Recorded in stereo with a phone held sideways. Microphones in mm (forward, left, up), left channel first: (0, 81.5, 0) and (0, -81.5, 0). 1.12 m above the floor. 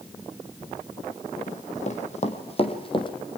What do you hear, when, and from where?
1.5 s running footsteps: 50° left (ahead or behind), 2.5 m; by 3.1 s 30° left (ahead or behind), 2.5 m